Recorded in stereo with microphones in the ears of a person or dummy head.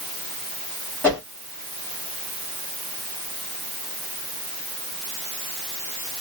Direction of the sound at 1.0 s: 10° left (ahead or behind).